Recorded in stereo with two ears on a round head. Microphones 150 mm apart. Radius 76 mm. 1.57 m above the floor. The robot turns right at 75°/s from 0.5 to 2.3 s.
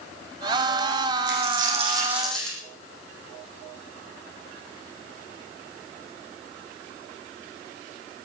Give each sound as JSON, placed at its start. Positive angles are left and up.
{"t": 1.3, "sound": "a dropped coin", "azimuth_deg": -75, "distance_m": 6.5}